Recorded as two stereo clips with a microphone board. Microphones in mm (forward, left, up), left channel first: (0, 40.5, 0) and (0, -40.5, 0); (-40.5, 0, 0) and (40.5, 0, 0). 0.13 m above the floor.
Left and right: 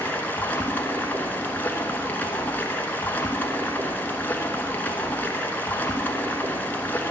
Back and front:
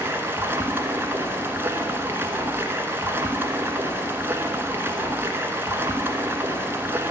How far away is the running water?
About 1.0 m.